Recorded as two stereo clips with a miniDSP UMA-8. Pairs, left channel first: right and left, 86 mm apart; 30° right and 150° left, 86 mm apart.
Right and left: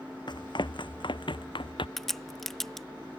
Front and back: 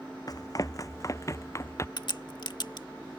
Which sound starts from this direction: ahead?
A crack, at 2.0 s.